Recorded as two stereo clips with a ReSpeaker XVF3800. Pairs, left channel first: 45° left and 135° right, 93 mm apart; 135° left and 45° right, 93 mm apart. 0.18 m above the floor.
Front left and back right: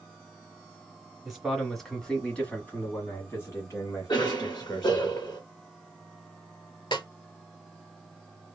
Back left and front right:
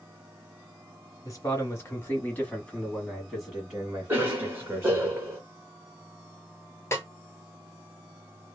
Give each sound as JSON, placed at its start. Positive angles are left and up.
{"t": 1.2, "sound": "a man speaking", "azimuth_deg": 145, "distance_m": 1.5}
{"t": 4.1, "sound": "a cough", "azimuth_deg": 20, "distance_m": 1.9}
{"t": 6.9, "sound": "a snare drum", "azimuth_deg": 75, "distance_m": 1.1}